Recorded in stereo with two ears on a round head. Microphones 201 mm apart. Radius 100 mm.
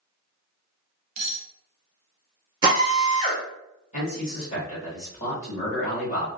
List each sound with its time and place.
1.2 s cutlery clinking: 65° right (ahead or behind), 0.6 m
2.6 s a drill: 20° right (ahead or behind), 1.0 m
3.9 s a man speaking: 30° left (ahead or behind), 1.6 m